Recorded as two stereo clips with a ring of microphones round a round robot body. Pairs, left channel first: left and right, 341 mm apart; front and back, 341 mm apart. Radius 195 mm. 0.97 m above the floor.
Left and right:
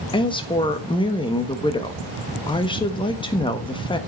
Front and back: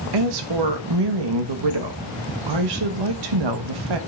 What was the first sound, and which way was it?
A woman speaking, 165° left.